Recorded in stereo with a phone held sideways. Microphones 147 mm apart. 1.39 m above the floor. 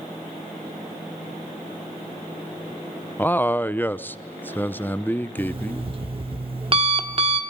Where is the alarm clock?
40° right (ahead or behind), 1.3 m.